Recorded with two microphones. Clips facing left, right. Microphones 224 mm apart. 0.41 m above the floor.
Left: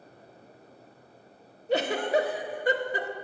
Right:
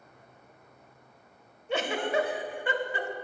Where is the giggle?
35° left (ahead or behind), 0.6 m.